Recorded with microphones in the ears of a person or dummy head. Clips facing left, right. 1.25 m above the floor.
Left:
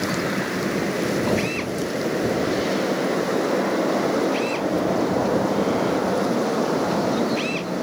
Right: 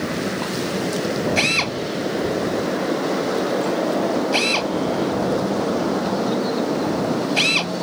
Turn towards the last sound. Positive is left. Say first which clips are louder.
# right 1 dB
turn(degrees=-80)